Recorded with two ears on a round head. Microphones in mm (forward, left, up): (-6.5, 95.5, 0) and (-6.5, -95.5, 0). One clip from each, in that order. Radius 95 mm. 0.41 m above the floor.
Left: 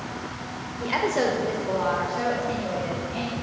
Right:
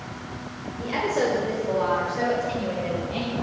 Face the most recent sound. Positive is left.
turn(degrees=-35)  # may be behind; listen again after turning